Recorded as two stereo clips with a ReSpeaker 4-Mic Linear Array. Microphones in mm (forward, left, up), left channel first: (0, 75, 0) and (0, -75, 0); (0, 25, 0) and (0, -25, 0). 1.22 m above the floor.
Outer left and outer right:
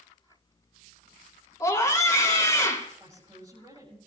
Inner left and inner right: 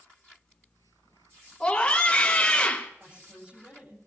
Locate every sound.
1.6 s a scream: 20° left (ahead or behind), 2.5 m
3.0 s a woman speaking: 20° right (ahead or behind), 9 m